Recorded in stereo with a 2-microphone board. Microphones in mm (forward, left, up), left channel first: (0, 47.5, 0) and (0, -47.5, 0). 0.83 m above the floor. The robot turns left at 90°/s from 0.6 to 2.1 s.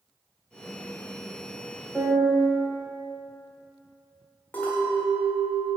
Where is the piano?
Centre (ahead or behind), 1.5 m; by 2.5 s 15° right (ahead or behind), 1.5 m.